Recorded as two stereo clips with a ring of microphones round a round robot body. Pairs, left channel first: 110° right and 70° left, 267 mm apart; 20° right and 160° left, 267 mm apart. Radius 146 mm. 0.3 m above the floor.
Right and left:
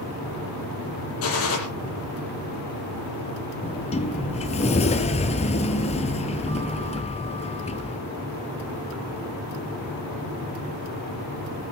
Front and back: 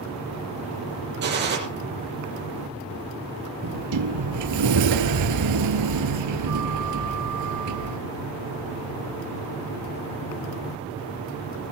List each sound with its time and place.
1.2 s a gunshot: 150° right, 7 m
3.6 s a sliding door: straight behind, 1.3 m